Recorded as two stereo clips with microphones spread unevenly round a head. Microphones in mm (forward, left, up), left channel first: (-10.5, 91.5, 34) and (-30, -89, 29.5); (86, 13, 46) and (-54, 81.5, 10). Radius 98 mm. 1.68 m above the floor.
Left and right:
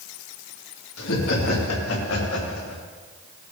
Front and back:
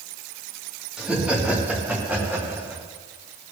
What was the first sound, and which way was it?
Laughter, 70° left.